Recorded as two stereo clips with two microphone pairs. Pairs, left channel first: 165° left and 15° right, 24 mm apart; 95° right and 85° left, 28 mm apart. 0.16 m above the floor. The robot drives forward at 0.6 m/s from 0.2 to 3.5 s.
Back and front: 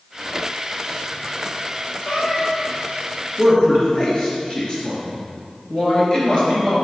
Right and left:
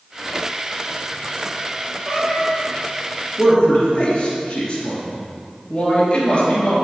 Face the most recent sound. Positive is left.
turn(degrees=-145)